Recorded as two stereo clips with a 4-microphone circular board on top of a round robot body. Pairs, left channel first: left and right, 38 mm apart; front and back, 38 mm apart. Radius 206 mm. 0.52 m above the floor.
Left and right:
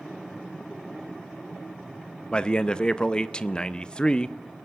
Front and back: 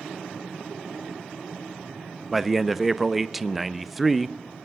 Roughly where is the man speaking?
Left.